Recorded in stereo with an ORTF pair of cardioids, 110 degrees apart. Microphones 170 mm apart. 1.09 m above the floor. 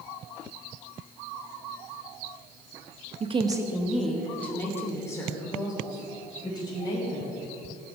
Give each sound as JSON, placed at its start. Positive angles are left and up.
{"t": 3.2, "sound": "a woman speaking", "azimuth_deg": -40, "distance_m": 1.1}